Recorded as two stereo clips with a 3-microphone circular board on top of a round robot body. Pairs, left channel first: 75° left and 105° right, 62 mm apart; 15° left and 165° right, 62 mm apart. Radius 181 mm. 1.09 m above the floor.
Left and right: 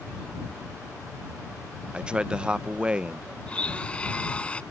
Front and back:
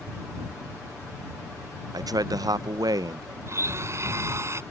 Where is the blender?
150° left.